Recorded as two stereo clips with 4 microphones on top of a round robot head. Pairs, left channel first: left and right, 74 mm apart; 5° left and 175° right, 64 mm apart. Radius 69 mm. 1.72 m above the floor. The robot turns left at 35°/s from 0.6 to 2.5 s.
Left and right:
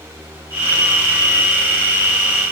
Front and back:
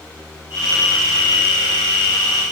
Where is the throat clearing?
No throat clearing in this recording.